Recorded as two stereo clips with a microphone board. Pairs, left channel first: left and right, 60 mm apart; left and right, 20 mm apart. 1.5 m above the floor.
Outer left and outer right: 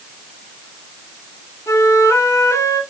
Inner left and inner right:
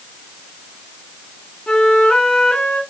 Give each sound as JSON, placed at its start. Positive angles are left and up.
{"t": 1.7, "sound": "a flute", "side_deg": 50, "distance_m": 2.0}